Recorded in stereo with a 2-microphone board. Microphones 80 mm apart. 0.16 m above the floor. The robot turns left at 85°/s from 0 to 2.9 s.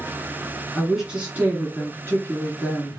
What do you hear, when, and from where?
0.8 s a woman speaking: 5° left (ahead or behind), 1.7 m; by 3.0 s 5° right (ahead or behind), 1.7 m